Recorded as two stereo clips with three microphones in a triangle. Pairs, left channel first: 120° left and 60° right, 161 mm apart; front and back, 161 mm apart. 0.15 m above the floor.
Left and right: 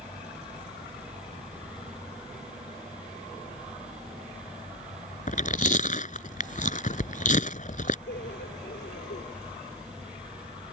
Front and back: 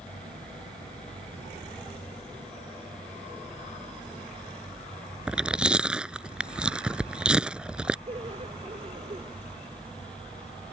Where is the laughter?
130° left.